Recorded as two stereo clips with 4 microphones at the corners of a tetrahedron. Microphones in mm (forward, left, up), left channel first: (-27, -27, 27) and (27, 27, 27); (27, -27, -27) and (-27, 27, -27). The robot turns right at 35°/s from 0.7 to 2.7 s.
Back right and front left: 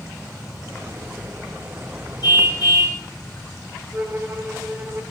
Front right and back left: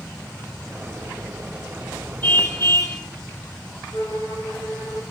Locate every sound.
2.2 s a car horn: 110° right, 5.5 m; by 3.0 s 95° right, 5.5 m
3.9 s a violin: 40° right, 9 m